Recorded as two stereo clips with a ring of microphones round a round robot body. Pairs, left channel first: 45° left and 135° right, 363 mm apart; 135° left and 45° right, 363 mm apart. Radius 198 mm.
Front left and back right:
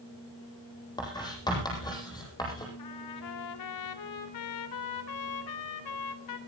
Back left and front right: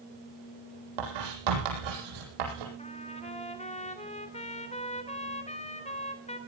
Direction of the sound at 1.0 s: 35° right.